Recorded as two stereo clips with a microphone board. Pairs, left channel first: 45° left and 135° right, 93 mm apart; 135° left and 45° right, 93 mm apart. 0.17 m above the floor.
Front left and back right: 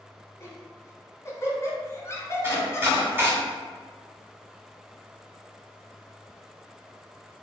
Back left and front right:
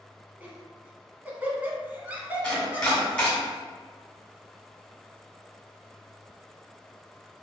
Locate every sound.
0.4 s laughter: 20° left, 1.3 m
2.4 s chopping: 160° right, 1.8 m